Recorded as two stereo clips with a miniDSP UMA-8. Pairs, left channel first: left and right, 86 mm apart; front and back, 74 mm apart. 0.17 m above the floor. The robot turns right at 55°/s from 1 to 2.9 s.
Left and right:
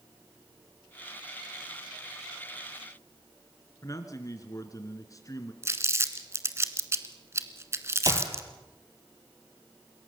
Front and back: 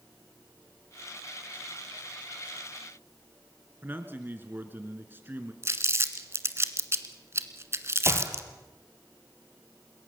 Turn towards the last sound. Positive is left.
turn(degrees=-130)